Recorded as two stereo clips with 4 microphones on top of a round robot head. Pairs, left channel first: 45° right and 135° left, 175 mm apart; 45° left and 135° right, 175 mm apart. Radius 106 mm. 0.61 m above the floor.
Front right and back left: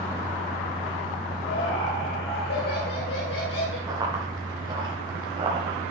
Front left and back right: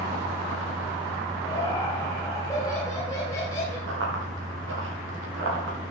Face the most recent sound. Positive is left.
turn(degrees=-155)